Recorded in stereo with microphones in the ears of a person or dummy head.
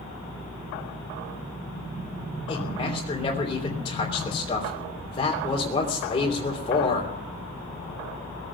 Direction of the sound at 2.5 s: 30° left (ahead or behind).